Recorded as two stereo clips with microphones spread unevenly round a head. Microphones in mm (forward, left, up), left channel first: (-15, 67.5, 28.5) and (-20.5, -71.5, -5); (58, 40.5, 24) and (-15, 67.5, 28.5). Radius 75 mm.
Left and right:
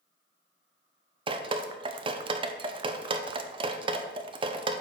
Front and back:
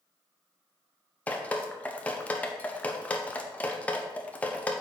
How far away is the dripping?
About 0.6 m.